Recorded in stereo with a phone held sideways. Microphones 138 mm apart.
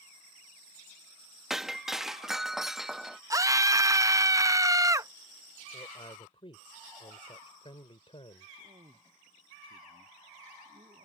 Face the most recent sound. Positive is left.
turn(degrees=-45)  # may be behind; listen again after turning